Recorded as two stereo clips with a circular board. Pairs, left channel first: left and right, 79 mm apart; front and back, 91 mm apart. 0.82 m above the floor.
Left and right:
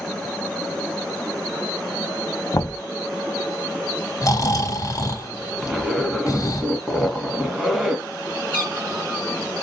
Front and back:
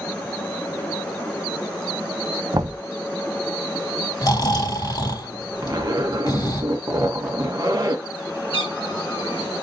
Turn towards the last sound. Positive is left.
turn(degrees=-25)